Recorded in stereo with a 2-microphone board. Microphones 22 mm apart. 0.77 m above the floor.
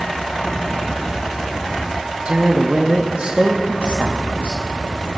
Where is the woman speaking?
55° right (ahead or behind), 0.8 m.